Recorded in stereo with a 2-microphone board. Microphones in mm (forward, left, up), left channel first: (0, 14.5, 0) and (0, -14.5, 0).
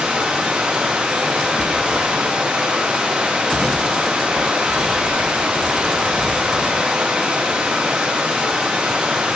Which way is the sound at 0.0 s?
50° right (ahead or behind).